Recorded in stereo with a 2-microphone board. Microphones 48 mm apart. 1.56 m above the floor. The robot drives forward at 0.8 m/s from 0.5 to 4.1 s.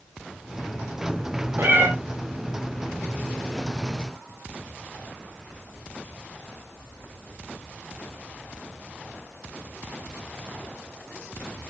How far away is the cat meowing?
About 2.5 m.